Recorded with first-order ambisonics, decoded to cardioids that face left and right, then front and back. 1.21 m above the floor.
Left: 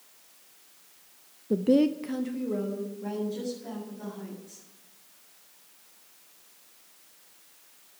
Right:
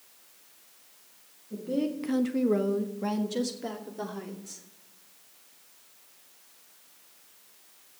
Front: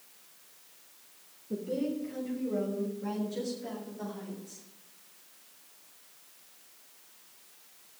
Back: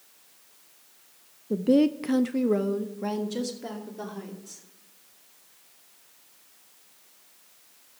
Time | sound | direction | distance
1.5 | a woman speaking | 120° left | 0.6 m